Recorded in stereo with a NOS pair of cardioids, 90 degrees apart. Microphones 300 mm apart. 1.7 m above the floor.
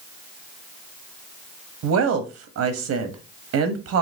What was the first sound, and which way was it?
A woman speaking, 60° right.